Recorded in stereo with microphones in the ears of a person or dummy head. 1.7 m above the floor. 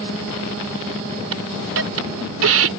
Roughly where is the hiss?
Right.